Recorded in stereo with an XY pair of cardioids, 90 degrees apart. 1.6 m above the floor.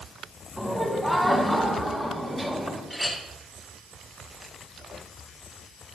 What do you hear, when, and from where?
0.6 s laughter: straight ahead, 7 m; by 2.8 s 10° left, 10 m
2.9 s a clink: 5° left, 8 m